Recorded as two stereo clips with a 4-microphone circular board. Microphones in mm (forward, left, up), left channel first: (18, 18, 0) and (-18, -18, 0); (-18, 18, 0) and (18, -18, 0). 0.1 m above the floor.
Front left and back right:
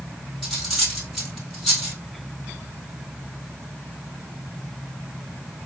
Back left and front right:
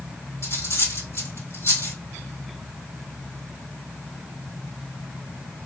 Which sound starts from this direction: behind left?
Cutlery clinking, at 0.4 s.